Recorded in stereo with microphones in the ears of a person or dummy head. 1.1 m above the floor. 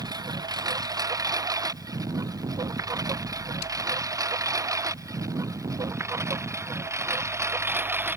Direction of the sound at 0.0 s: 20° right (ahead or behind).